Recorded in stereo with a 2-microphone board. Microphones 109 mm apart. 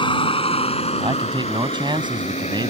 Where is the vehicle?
50° left (ahead or behind); by 2.7 s 85° left.